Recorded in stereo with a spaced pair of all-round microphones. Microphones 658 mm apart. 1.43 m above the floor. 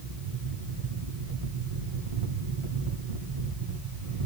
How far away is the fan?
About 1.8 m.